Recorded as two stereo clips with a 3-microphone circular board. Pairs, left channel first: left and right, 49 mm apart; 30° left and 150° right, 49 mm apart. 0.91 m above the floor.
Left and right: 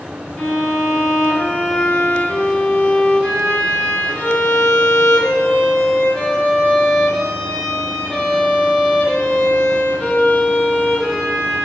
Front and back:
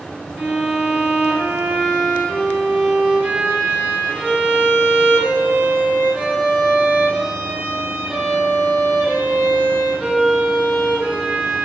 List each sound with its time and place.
0.4 s a violin: 160° left, 1.2 m